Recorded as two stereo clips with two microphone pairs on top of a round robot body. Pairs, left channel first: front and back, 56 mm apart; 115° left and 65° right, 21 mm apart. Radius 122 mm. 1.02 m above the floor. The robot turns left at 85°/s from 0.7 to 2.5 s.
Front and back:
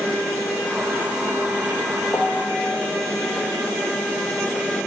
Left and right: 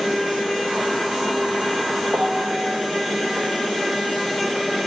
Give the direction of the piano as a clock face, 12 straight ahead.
2 o'clock.